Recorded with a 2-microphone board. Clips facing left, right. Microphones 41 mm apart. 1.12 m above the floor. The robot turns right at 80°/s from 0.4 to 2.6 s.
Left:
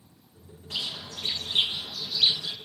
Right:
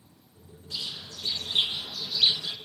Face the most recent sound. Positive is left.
turn(degrees=-135)